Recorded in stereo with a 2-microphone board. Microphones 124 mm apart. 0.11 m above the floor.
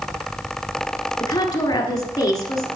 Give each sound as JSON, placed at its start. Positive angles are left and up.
{"t": 1.2, "sound": "a woman speaking", "side_deg": 30, "distance_m": 1.3}